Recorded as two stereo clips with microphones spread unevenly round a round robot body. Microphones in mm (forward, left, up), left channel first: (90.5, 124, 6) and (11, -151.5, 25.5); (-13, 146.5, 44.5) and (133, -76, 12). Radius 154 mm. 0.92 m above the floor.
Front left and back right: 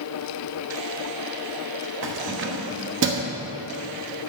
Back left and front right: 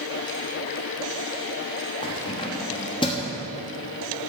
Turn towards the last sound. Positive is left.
turn(degrees=-160)